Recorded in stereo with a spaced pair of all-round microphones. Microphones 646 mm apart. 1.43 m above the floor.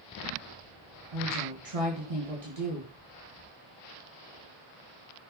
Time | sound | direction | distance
1.1 | a woman speaking | 55° right (ahead or behind) | 2 m